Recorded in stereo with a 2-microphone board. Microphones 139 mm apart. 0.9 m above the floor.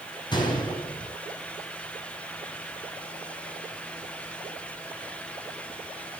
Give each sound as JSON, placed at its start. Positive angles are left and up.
{"t": 0.3, "sound": "a gunshot", "side_deg": 30, "distance_m": 5.5}